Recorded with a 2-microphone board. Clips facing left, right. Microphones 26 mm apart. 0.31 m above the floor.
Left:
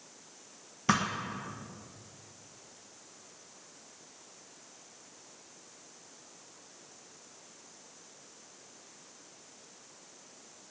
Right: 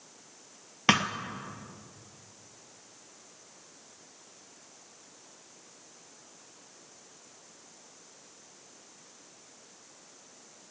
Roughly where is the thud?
Right.